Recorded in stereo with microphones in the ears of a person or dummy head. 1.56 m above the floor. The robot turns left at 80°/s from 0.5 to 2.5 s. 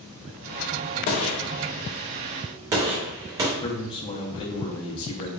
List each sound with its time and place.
1.1 s a gunshot: 40° left (ahead or behind), 0.6 m; by 3.5 s 25° right (ahead or behind), 0.6 m
3.6 s a man speaking: 20° left (ahead or behind), 0.6 m